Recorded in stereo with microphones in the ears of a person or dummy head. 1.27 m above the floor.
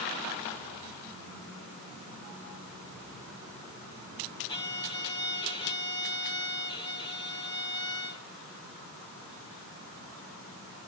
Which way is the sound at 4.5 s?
30° left (ahead or behind).